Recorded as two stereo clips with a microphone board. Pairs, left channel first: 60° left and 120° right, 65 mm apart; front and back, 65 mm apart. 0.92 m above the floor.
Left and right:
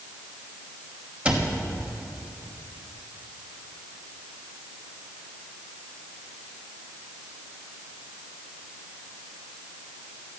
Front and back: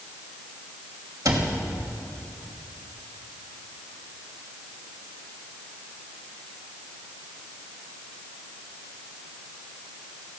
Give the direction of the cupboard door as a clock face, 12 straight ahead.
6 o'clock.